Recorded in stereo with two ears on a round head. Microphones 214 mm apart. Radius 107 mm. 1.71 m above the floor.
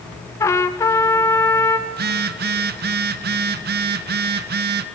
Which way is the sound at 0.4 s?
15° left (ahead or behind).